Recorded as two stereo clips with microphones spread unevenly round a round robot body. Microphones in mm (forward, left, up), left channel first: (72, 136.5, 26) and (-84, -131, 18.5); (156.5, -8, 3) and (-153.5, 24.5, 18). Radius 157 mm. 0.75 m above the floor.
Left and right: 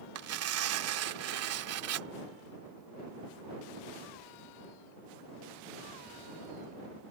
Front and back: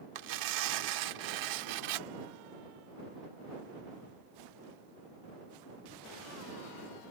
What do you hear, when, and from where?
0.1 s tearing paper: 160° right